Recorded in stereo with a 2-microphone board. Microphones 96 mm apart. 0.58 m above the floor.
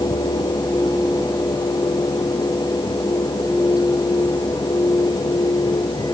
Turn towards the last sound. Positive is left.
No sound to turn to.